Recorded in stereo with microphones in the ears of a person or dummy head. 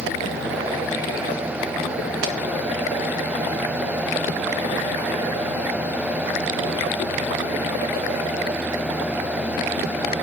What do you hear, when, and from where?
2.2 s a pop: 65° right (ahead or behind), 0.8 m